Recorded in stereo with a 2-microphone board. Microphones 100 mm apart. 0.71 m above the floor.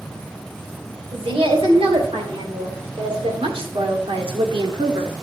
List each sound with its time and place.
1.1 s a woman speaking: 70° right (ahead or behind), 3 m; by 5.1 s 50° right (ahead or behind), 1.1 m